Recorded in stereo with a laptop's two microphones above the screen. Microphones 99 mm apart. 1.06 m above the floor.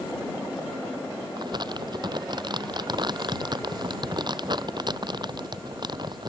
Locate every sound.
1.4 s crumpling: 50° right (ahead or behind)